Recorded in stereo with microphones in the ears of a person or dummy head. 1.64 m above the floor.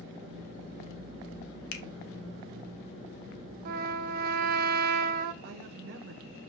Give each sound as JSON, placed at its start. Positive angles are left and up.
{"t": 1.7, "sound": "a finger snap", "side_deg": 65, "distance_m": 1.4}
{"t": 3.6, "sound": "a trumpet", "side_deg": -45, "distance_m": 0.6}
{"t": 5.4, "sound": "a woman speaking", "side_deg": -50, "distance_m": 0.8}